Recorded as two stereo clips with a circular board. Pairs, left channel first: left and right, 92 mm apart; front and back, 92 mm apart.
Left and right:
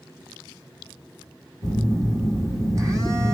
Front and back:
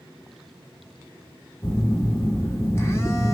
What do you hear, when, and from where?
1.6 s a phone buzzing: 50° right, 1.6 m